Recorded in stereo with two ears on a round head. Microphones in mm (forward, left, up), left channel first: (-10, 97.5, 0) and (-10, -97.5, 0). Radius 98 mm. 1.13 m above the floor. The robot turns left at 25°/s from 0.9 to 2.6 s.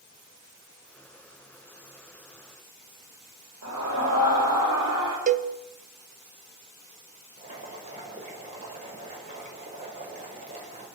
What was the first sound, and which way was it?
A scream, 85° right.